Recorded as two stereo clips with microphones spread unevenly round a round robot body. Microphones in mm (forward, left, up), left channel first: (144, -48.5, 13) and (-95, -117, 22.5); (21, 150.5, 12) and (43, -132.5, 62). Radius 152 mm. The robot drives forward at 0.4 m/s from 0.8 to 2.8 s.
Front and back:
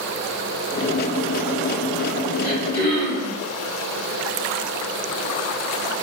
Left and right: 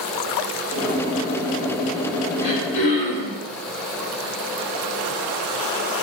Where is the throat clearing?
130° left, 1.5 m; by 3.4 s 140° left, 1.6 m.